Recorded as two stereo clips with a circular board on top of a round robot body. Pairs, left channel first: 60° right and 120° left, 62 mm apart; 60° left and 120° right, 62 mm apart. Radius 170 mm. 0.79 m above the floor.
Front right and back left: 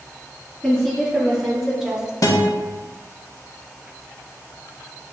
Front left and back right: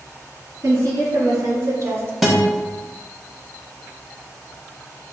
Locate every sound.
0.6 s a woman speaking: 150° right, 1.8 m; by 2.1 s 165° right, 0.8 m
2.2 s a guitar: 30° right, 0.6 m